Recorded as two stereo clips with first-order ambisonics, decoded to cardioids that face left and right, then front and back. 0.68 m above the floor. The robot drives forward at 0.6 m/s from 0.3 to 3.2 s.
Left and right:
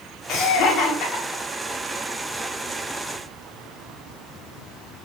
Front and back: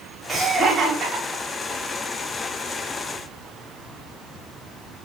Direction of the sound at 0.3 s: 100° left.